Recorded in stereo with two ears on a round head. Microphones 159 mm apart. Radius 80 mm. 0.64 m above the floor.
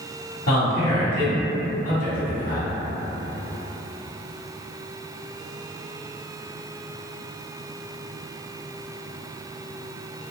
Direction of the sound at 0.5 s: 50° left (ahead or behind).